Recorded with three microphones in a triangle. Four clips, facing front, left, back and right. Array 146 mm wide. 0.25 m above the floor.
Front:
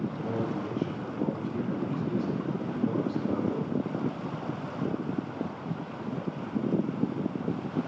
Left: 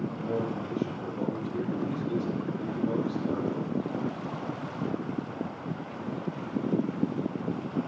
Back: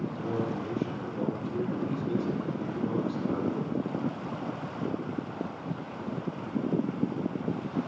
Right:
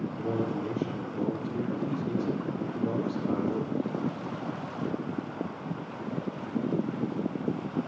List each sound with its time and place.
0.2 s a man speaking: 95° right, 5.5 m